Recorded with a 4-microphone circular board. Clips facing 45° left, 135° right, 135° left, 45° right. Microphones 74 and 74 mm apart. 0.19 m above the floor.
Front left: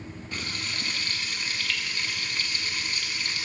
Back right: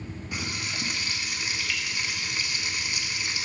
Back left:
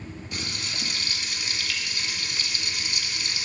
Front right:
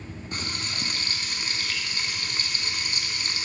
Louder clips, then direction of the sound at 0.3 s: Back right 1 dB, front right 2 dB; 65° right.